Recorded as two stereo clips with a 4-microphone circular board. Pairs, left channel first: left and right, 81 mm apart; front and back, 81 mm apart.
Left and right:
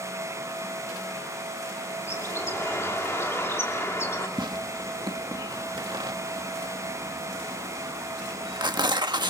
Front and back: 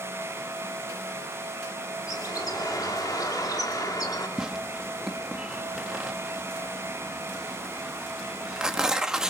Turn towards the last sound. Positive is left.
turn(degrees=-100)